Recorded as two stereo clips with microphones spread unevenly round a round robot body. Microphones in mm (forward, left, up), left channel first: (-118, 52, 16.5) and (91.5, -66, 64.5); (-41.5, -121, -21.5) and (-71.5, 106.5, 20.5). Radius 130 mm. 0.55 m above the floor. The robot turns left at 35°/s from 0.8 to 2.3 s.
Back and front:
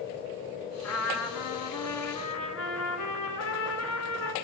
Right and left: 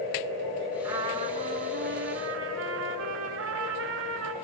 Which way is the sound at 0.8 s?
175° left.